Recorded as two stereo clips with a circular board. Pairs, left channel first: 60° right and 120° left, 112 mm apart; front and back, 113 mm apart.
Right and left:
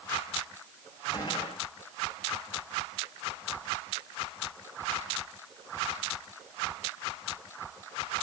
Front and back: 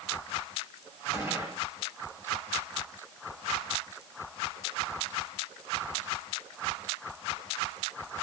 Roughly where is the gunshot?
Behind right.